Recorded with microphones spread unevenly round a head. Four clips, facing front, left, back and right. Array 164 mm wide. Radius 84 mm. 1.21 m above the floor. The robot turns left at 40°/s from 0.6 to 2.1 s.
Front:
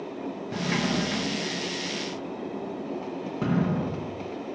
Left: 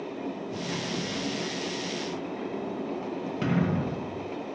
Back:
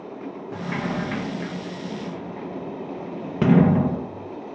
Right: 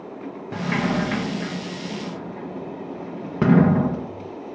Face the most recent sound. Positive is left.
turn(degrees=-130)